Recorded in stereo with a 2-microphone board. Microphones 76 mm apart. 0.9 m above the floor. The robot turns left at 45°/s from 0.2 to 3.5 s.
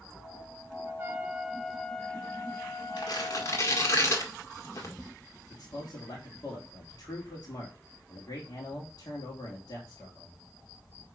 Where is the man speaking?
55° left (ahead or behind), 2.5 m.